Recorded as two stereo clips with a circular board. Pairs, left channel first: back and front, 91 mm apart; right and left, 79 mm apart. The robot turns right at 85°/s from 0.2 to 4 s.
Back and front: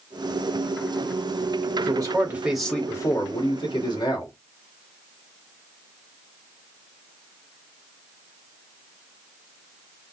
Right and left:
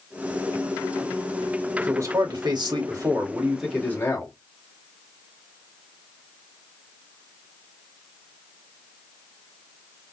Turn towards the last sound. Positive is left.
turn(degrees=-150)